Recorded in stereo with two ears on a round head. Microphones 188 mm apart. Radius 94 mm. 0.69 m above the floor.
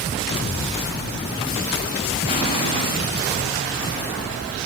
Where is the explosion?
25° left (ahead or behind), 5 m.